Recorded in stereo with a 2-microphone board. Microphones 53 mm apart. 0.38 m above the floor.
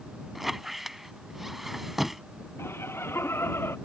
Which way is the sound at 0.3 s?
5° right (ahead or behind).